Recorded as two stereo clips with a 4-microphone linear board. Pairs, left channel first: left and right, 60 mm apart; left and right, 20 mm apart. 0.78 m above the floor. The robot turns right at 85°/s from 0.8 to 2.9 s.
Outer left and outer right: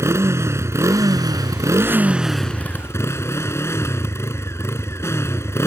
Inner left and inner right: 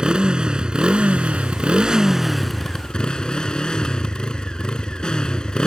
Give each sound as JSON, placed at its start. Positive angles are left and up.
{"t": 0.0, "sound": "a motorcycle", "azimuth_deg": -130}